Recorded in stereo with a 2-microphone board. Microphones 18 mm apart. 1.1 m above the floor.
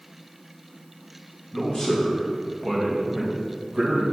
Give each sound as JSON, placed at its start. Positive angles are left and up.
{"t": 1.5, "sound": "a man speaking", "side_deg": 30, "distance_m": 2.0}